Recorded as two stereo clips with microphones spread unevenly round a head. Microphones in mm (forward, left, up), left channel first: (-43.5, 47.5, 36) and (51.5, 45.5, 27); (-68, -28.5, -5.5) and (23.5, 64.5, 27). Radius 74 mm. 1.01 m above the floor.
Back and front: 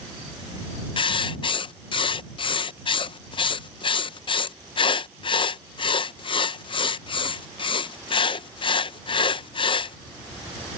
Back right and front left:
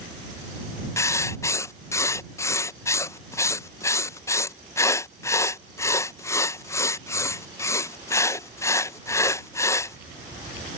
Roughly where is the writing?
Behind.